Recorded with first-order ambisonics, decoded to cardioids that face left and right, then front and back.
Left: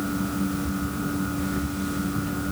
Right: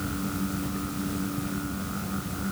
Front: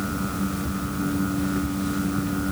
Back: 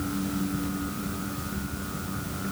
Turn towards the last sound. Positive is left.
No sound to turn to.